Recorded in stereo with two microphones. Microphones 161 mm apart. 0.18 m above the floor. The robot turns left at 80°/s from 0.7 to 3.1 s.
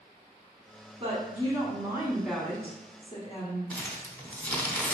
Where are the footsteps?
No footsteps in this recording.